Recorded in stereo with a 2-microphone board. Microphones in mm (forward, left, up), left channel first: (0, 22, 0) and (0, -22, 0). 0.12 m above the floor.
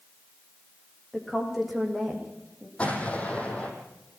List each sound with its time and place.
1.1 s a woman speaking: 5° right (ahead or behind), 8 m
2.8 s an explosion: 25° left (ahead or behind), 6 m